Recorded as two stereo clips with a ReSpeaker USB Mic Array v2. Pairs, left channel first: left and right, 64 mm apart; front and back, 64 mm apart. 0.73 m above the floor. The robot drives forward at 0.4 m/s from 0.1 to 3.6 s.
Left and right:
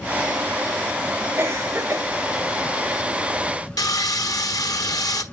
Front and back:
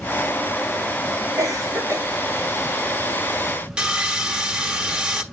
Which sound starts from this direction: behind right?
A cough, at 1.4 s.